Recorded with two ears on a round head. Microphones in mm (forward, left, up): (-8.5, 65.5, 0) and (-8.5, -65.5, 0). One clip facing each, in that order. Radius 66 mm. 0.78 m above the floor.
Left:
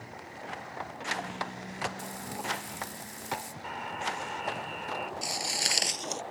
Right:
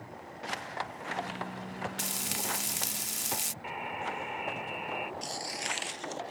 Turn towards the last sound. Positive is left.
turn(degrees=60)  # may be behind; listen again after turning